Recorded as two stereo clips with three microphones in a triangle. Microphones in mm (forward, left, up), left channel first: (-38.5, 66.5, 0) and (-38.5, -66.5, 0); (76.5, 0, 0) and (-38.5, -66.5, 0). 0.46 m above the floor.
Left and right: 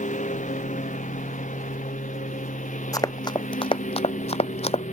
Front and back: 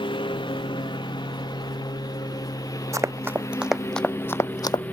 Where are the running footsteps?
150° left; by 4.8 s 75° left.